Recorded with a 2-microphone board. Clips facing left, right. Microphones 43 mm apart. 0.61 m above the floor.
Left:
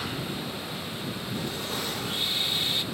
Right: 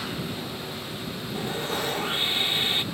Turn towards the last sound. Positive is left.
turn(degrees=-35)  # may be behind; listen again after turning